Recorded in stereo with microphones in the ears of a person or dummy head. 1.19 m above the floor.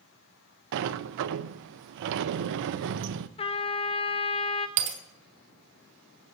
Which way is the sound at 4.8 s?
65° right (ahead or behind).